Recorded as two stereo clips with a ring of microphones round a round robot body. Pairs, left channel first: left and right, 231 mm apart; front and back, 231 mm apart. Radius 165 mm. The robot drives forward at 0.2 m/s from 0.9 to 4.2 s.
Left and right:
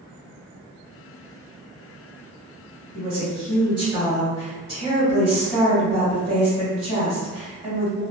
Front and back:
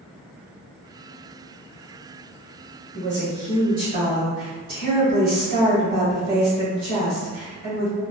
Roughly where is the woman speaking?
Behind right.